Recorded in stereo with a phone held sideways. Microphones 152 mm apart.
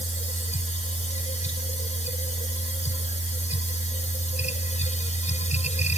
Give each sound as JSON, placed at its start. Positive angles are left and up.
{"t": 0.0, "sound": "a machine running", "side_deg": 50}